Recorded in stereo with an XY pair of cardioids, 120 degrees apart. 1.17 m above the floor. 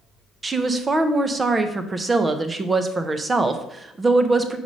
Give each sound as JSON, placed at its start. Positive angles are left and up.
{"t": 0.4, "sound": "a woman speaking", "azimuth_deg": -25, "distance_m": 0.7}